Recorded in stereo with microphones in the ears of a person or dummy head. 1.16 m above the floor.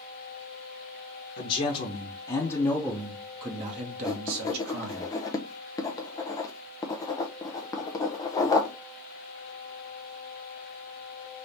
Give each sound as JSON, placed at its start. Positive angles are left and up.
{"t": 1.4, "sound": "a man speaking", "side_deg": 45, "distance_m": 1.0}
{"t": 4.0, "sound": "writing", "side_deg": 20, "distance_m": 0.6}